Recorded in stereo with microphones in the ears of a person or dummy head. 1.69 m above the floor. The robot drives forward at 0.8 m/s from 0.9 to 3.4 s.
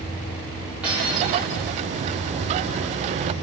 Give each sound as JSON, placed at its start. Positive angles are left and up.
{"t": 0.8, "sound": "cutlery clinking", "side_deg": -5, "distance_m": 1.9}